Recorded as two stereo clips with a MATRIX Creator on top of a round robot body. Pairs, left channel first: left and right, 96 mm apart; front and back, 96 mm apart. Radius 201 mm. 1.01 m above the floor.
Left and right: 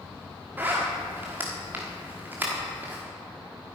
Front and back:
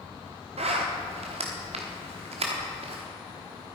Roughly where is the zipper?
Behind.